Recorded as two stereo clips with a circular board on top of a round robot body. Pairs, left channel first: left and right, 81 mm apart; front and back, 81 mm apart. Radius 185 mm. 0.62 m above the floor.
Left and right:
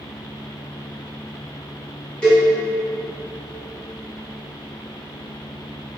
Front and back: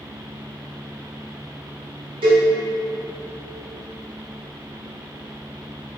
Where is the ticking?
No ticking in this recording.